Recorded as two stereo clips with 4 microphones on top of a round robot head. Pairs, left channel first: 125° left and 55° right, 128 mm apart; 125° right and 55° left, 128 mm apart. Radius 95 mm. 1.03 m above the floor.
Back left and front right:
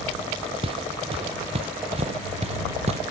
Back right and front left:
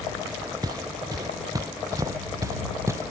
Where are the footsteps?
5° right; by 3.1 s 15° right.